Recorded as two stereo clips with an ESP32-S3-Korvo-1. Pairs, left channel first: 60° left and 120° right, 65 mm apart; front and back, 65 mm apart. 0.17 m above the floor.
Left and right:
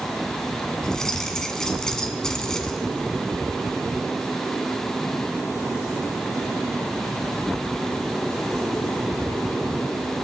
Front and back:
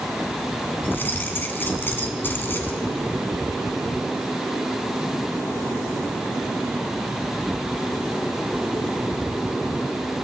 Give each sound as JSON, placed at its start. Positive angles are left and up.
{"t": 0.8, "sound": "keys jangling", "azimuth_deg": -15, "distance_m": 1.2}